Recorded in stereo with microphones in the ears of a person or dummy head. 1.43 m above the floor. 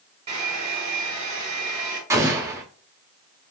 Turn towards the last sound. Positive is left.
turn(degrees=-15)  # may be behind; listen again after turning